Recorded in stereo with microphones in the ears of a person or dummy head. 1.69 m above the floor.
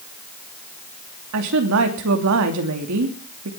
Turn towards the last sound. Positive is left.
turn(degrees=-70)  # may be behind; listen again after turning